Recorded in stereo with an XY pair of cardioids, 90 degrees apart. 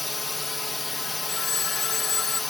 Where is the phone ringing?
65° left.